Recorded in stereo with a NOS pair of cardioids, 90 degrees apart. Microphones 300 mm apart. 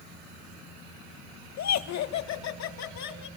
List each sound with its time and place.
1.6 s laughter: 65° left, 1.6 m